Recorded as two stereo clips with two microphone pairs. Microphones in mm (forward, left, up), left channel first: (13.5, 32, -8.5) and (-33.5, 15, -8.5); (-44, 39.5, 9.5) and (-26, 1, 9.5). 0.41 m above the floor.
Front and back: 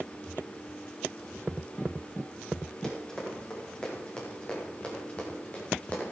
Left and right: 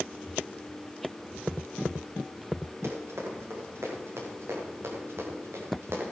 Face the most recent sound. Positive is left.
turn(degrees=-45)